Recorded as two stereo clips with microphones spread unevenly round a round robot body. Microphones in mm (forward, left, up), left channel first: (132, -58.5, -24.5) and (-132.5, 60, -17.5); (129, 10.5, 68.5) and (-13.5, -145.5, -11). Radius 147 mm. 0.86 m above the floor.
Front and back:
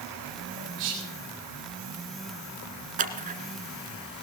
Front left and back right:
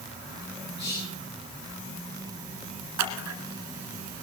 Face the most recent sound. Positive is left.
turn(degrees=-145)